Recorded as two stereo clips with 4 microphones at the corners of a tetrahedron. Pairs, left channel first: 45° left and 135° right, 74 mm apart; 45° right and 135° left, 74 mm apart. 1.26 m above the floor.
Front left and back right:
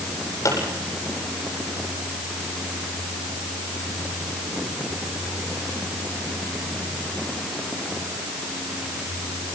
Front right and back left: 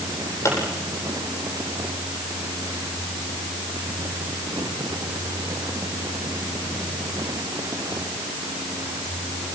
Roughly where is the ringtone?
No ringtone in this recording.